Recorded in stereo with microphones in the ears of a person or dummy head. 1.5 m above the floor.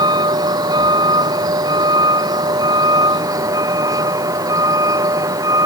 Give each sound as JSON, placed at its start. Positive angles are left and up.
{"t": 0.0, "sound": "a vehicle", "side_deg": -20}